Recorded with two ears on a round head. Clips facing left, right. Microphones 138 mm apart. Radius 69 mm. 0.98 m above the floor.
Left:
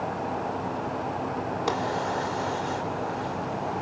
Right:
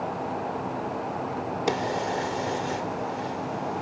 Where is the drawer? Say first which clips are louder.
Right 2 dB; 25° right (ahead or behind), 1.3 m.